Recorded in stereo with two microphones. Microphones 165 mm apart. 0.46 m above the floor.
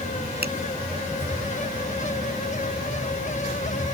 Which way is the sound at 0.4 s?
80° right.